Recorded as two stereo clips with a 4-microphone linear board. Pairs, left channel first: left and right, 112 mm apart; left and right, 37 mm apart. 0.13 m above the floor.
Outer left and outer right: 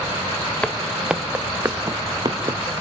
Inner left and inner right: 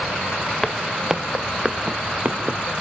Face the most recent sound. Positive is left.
turn(degrees=-45)  # may be behind; listen again after turning